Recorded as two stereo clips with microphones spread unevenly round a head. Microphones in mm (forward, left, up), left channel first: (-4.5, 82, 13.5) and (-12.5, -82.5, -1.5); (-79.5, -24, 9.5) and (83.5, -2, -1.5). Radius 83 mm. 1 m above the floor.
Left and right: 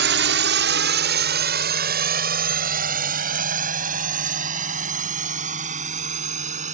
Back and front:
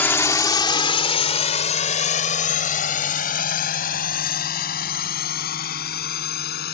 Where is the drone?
95° right; by 6.7 s 140° right.